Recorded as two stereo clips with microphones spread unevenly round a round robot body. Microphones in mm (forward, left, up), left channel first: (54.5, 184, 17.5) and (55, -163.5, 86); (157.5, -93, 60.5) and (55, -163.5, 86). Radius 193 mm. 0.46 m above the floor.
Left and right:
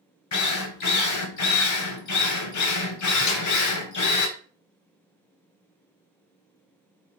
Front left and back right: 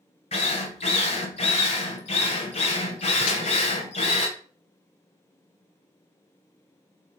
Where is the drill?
60° left, 2.5 m.